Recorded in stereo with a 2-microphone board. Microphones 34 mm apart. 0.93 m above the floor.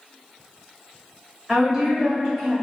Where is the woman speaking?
10° right (ahead or behind), 1.8 m.